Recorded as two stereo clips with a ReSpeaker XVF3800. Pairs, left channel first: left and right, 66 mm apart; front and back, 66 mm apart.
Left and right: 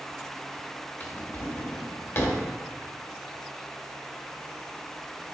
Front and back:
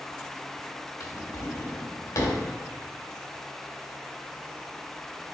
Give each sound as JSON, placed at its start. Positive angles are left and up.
{"t": 1.0, "sound": "a drawer", "azimuth_deg": 40, "distance_m": 1.3}